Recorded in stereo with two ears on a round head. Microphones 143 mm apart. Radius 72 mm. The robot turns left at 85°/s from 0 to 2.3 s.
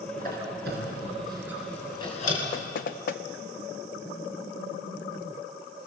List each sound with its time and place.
0.2 s a squeak: 55° right (ahead or behind), 4 m; by 2.4 s 55° left (ahead or behind), 4 m
2.5 s knocking: 60° left (ahead or behind), 0.7 m